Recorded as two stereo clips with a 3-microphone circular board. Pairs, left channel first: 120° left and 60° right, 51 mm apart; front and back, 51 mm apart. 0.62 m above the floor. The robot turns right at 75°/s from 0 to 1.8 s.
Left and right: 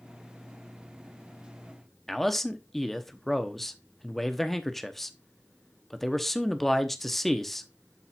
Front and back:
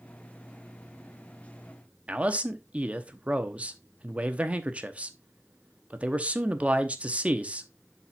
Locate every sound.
2.1 s a man speaking: 160° right, 0.9 m